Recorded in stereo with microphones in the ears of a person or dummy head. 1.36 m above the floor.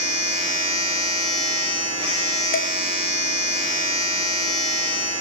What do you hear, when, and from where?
0.0 s a machine running: 25° right (ahead or behind), 7.5 m
2.5 s dishes clattering: 60° left (ahead or behind), 0.9 m